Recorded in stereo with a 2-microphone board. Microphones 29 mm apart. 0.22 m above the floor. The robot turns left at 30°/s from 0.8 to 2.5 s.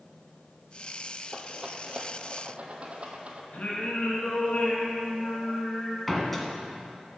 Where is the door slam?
5° left (ahead or behind), 1.5 m.